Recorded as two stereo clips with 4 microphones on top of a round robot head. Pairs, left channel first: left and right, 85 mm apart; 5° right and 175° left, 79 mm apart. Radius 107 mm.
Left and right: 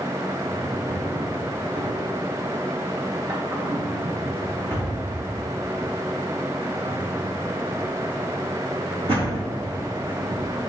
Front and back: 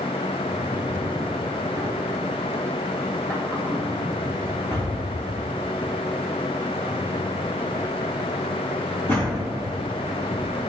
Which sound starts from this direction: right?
A drawer, at 0.5 s.